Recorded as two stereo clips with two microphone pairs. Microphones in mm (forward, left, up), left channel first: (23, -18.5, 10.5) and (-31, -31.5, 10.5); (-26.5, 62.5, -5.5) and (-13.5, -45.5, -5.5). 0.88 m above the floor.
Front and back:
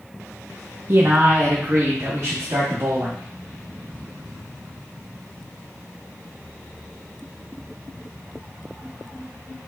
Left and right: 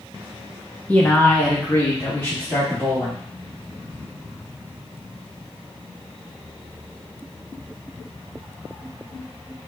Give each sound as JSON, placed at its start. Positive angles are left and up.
{"t": 0.9, "sound": "a man speaking", "azimuth_deg": 165, "distance_m": 0.6}